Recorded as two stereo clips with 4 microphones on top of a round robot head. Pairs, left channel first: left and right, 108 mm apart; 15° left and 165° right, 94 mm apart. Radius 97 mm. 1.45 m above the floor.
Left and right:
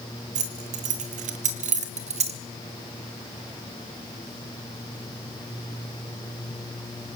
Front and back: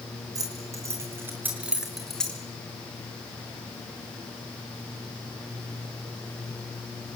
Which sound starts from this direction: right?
Keys jangling, at 0.3 s.